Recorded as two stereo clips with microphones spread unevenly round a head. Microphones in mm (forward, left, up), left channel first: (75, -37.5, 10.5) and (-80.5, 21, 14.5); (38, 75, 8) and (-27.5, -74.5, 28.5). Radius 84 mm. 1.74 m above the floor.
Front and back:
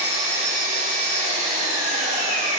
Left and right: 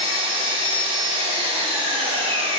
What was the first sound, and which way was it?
An engine running, 165° right.